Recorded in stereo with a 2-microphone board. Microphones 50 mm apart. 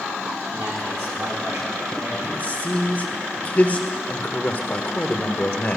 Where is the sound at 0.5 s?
65° right (ahead or behind), 3.5 m.